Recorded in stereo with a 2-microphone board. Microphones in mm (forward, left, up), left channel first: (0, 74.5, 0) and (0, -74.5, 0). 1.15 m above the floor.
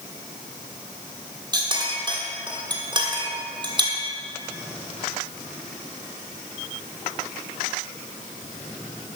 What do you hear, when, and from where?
1.5 s a clink: 30° right (ahead or behind), 1.4 m